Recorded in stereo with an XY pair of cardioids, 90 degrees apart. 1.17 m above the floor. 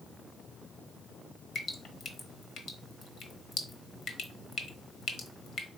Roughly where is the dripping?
Ahead left.